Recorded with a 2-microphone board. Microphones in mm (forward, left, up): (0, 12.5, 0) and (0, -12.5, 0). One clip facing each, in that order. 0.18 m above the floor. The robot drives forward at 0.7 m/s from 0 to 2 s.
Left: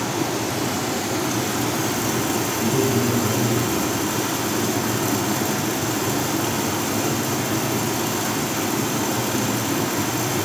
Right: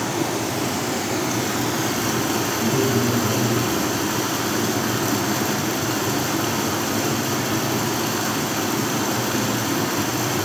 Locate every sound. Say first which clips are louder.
0.0 s running water: even; 10° right (ahead or behind), 2 m; by 10.4 s 30° right (ahead or behind), 0.8 m
2.6 s a man speaking: even; 20° right (ahead or behind), 1.1 m